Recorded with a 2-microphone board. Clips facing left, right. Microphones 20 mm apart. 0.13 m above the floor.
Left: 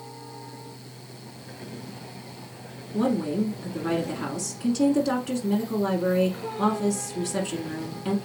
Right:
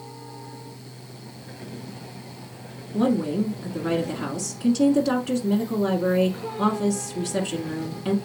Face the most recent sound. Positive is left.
turn(degrees=-10)  # may be behind; listen again after turning